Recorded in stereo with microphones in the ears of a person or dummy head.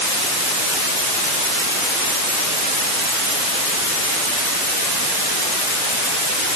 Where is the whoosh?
No whoosh in this recording.